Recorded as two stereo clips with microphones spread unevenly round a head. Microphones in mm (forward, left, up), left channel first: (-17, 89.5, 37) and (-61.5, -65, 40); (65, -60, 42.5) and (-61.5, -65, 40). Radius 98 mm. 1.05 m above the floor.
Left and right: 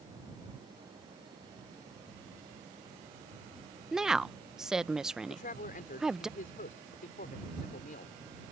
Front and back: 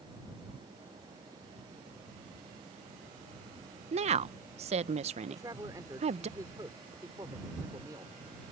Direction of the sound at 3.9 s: 170° left.